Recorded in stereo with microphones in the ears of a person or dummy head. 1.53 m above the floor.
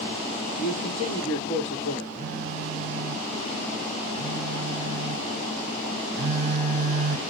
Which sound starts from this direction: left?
A man speaking, at 0.6 s.